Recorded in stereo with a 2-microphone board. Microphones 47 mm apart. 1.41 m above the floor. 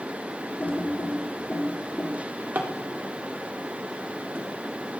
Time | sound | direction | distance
0.6 | typing on a keyboard | 40° left (ahead or behind) | 3 m
2.1 | a drawer | 45° right (ahead or behind) | 2 m